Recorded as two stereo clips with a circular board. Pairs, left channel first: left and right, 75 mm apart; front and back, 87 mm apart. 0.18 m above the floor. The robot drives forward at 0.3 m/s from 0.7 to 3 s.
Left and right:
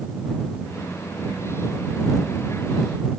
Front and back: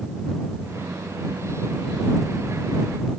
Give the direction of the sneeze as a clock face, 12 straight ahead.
No sneeze in this recording.